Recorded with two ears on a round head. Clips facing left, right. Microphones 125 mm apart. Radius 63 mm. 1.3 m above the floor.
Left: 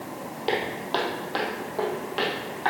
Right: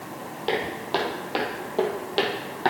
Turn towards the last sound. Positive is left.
turn(degrees=-50)  # may be behind; listen again after turning